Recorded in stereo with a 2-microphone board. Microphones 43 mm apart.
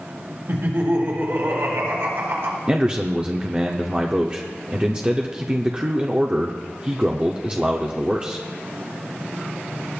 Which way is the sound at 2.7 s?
25° right (ahead or behind).